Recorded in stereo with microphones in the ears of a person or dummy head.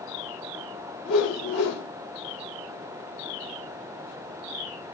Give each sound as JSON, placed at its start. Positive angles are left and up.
{"t": 1.1, "sound": "a whoosh", "side_deg": 85, "distance_m": 5.5}